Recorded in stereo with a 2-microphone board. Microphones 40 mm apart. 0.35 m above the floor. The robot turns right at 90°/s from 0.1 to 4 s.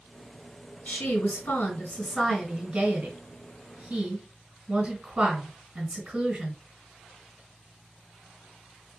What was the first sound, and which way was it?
A woman speaking, 45° left.